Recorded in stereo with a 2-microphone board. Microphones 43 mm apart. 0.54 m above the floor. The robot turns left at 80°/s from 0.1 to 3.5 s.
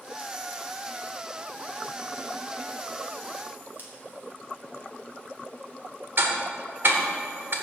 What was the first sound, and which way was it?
Scissors, 45° right (ahead or behind).